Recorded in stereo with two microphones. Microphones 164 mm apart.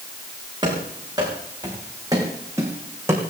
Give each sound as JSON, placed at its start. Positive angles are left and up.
{"t": 0.6, "sound": "running footsteps", "side_deg": -25, "distance_m": 6.5}